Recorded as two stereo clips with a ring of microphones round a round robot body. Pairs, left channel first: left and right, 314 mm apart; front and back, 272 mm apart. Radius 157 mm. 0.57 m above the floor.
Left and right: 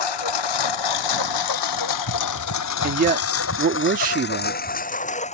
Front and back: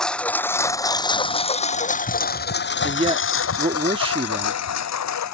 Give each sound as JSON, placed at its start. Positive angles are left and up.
{"t": 0.0, "sound": "a lawn mower", "azimuth_deg": 90}
{"t": 2.8, "sound": "a man speaking", "azimuth_deg": -125}